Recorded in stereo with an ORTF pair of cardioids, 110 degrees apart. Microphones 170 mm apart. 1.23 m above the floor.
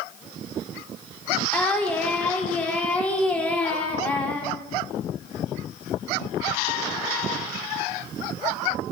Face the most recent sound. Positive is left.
turn(degrees=10)